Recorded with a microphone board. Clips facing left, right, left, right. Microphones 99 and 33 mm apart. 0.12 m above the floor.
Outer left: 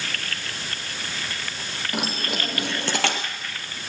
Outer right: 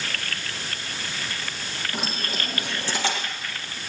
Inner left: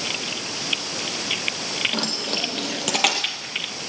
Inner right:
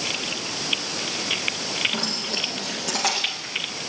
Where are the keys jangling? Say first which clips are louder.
Outer left 4 dB, inner left 1 dB; 70° left (ahead or behind), 3 m; by 3.2 s 65° left (ahead or behind), 1.9 m.